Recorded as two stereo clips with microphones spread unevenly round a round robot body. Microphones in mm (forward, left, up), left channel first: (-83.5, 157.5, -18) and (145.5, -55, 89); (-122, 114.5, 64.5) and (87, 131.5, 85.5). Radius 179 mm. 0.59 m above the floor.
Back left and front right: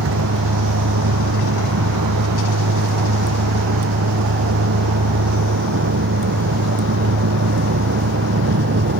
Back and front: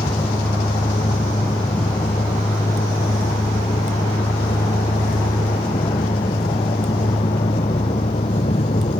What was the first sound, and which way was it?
A vehicle, 95° right.